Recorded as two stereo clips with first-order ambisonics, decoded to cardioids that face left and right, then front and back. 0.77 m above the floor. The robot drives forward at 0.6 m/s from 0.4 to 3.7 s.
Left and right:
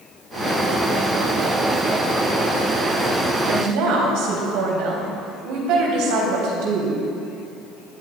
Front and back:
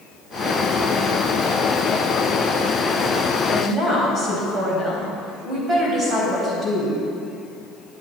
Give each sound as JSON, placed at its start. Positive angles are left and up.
{"t": 3.5, "sound": "a woman speaking", "azimuth_deg": -110, "distance_m": 4.0}